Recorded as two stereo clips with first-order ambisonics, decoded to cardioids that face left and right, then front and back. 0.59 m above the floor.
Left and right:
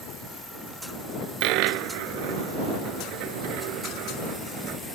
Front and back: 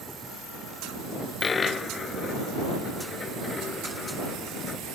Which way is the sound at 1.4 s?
70° right.